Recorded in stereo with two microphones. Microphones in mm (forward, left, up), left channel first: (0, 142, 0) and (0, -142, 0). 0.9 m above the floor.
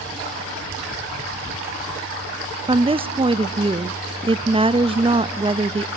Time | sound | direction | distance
2.7 | a woman speaking | 20° right (ahead or behind) | 0.6 m